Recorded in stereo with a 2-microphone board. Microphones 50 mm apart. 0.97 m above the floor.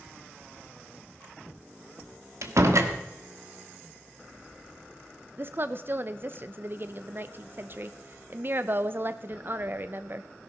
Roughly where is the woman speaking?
Right.